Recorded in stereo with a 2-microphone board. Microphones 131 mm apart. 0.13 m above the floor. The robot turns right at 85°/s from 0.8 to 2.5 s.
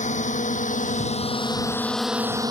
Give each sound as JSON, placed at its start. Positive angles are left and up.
{"t": 0.0, "sound": "a drone", "side_deg": 65}